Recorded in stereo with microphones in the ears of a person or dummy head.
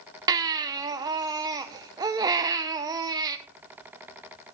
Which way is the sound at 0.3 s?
20° right (ahead or behind).